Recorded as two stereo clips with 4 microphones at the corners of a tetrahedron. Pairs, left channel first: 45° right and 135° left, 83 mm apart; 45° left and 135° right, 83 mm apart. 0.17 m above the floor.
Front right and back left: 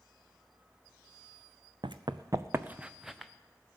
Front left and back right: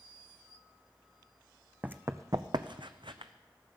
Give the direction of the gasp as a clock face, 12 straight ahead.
No gasp in this recording.